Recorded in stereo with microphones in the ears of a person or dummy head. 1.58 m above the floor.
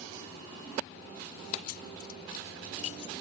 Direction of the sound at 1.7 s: 60° left (ahead or behind).